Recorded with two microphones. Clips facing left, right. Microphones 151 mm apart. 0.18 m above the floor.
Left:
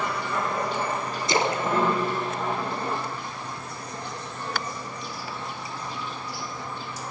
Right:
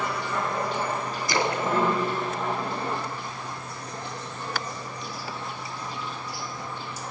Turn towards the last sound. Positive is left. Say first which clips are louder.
# left 1 dB
turn(degrees=25)  # may be behind; listen again after turning